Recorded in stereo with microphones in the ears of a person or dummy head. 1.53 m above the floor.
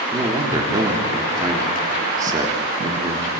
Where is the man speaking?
20° right (ahead or behind), 3 m.